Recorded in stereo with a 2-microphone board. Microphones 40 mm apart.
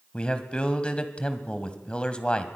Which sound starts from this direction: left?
A man speaking, at 0.1 s.